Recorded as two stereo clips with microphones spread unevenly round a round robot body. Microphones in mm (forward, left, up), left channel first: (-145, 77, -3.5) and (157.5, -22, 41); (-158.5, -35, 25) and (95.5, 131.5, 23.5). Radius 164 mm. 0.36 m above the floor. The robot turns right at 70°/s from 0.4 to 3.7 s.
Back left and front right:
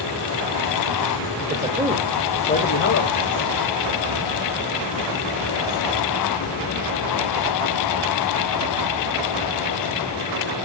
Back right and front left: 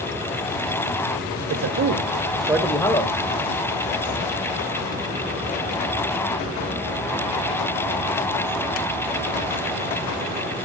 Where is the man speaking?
35° left, 1.1 m; by 3.1 s 160° left, 1.1 m.